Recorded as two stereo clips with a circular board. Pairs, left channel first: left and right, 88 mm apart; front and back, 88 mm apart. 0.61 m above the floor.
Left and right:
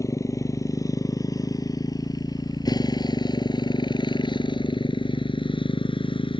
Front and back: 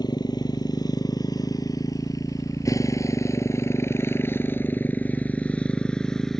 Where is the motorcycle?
35° left; by 6.4 s 85° left.